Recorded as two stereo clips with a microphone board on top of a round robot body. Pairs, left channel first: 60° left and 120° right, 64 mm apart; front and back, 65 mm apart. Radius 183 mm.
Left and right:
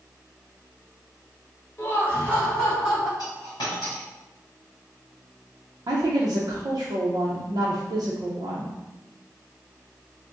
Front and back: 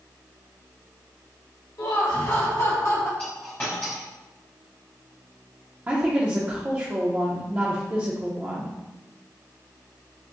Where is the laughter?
5° left, 1.5 m; by 3.1 s 25° right, 2.5 m.